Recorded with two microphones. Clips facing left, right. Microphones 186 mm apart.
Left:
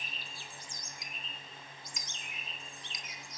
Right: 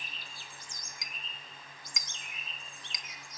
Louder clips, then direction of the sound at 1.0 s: Left 1 dB; 85° right.